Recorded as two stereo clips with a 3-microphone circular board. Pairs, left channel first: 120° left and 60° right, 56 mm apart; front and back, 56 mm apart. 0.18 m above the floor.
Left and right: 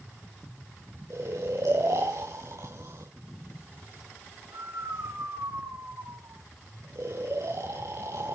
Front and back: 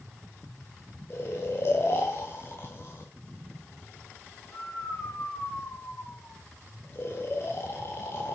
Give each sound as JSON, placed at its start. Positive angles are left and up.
{"t": 1.1, "sound": "snoring", "azimuth_deg": -45, "distance_m": 9.0}